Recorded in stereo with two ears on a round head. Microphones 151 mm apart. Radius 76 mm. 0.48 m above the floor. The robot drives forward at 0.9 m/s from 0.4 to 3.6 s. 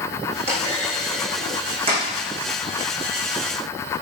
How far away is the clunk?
About 8 m.